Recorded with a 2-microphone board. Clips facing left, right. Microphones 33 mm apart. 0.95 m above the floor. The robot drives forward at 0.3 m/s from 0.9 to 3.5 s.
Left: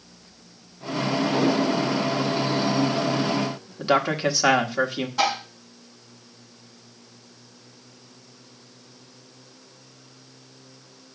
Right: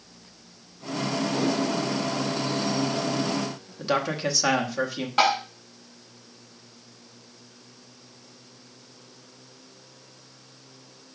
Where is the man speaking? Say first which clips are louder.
Left 4 dB; 25° left (ahead or behind), 1.2 m.